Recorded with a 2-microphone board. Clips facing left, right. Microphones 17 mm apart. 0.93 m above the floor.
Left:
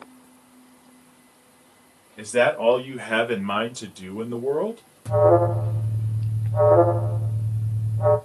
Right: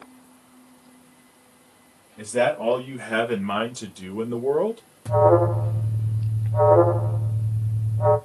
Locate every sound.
2.2 s a man speaking: 45° left (ahead or behind), 1.3 m; by 4.8 s 30° right (ahead or behind), 0.9 m
5.0 s an alarm: 5° right (ahead or behind), 1.2 m